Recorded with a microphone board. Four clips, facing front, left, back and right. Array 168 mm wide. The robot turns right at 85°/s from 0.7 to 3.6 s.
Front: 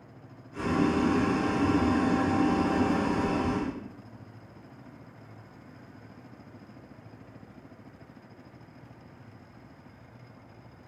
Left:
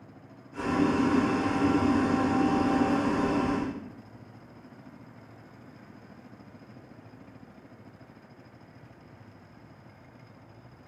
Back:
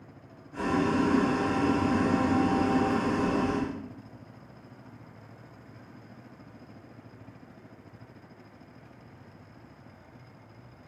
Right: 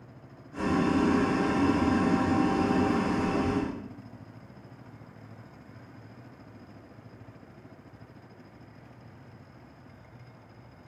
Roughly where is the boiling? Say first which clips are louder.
Even, even; behind right.